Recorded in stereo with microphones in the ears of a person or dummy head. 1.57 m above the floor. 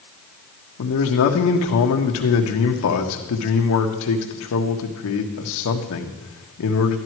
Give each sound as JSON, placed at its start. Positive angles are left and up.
{"t": 0.8, "sound": "a man speaking", "side_deg": 70, "distance_m": 1.6}